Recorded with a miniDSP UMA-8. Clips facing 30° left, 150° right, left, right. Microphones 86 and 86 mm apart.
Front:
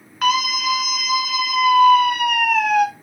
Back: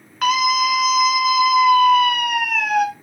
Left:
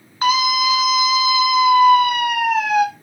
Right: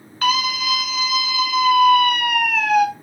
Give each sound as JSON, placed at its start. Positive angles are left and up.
{"t": 0.2, "sound": "a scream", "azimuth_deg": 120, "distance_m": 1.1}